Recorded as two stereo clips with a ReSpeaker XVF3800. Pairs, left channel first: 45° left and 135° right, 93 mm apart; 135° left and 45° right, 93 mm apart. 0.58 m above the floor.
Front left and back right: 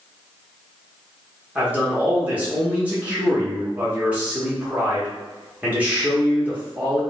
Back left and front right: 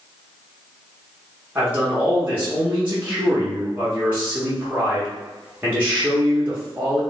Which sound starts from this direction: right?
A man speaking, at 1.6 s.